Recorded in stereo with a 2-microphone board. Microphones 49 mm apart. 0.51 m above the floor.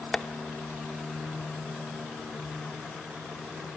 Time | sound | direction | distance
0.1 | tapping | 10° left (ahead or behind) | 0.9 m